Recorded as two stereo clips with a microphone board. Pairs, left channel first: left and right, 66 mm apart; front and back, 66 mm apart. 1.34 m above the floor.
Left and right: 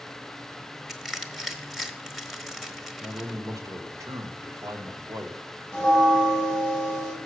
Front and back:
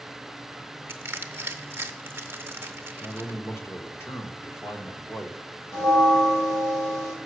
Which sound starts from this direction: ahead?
A bell, at 5.7 s.